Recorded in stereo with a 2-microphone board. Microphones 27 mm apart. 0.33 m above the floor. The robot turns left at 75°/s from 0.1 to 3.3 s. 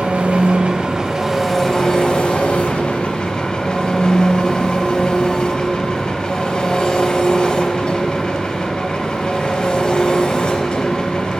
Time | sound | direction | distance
0.0 | an engine running | 80° right | 0.8 m